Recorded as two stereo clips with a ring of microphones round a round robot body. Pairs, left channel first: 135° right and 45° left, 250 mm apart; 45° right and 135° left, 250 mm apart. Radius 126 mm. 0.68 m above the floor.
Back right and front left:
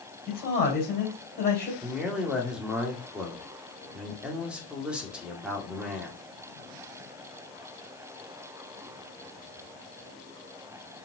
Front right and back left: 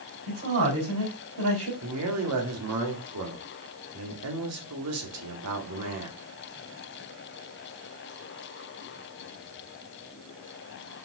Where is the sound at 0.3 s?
170° left, 3.5 m.